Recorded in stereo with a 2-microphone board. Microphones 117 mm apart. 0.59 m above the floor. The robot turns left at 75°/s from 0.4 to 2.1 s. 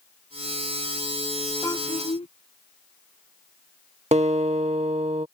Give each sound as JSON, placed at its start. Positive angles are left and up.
{"t": 1.6, "sound": "a child speaking", "azimuth_deg": 155}
{"t": 4.1, "sound": "a guitar", "side_deg": -70}